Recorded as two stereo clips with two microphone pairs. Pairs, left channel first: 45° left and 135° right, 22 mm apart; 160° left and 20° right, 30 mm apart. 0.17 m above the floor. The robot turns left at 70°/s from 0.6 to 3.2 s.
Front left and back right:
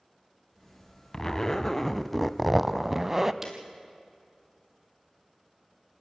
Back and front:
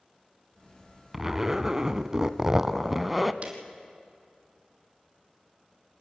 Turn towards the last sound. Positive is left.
turn(degrees=-60)